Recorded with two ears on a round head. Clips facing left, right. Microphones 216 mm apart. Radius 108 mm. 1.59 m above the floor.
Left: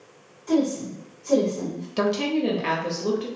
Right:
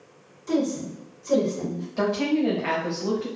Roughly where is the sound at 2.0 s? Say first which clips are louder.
Even; left.